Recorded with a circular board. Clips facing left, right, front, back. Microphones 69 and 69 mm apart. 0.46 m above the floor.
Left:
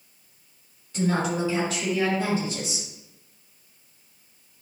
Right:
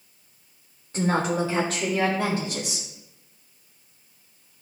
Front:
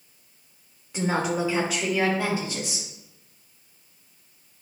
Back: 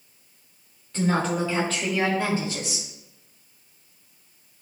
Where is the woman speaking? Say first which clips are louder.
Right 1 dB, back 1 dB; 65° right, 1.3 m; by 2.9 s 80° right, 3 m.